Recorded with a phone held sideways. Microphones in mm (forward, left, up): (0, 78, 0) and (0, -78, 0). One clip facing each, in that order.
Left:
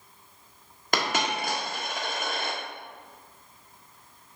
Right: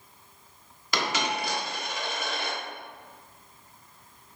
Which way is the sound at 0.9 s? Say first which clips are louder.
Left 1 dB; 55° left (ahead or behind).